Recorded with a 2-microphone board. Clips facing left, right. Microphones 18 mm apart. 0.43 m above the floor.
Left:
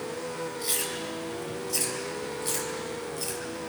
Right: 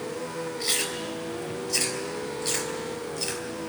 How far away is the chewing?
About 3 m.